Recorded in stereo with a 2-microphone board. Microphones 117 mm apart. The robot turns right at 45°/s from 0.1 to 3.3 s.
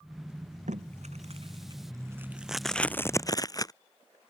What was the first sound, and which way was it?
Tape being pulled, 85° right.